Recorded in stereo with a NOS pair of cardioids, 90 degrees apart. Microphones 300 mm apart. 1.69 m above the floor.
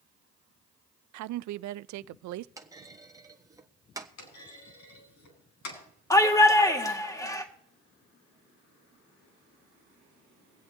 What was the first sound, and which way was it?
A woman speaking, 70° right.